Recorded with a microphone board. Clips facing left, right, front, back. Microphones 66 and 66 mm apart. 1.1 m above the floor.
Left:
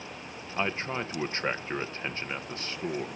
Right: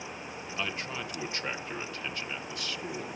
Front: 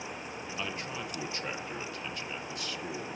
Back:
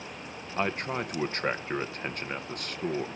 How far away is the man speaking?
About 0.5 m.